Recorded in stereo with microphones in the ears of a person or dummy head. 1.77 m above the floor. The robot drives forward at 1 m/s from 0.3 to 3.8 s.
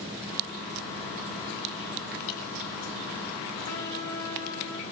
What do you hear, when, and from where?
2.3 s dripping: 40° left (ahead or behind), 9 m
3.7 s a trumpet: 55° left (ahead or behind), 5.5 m; by 4.8 s 60° left (ahead or behind), 5.5 m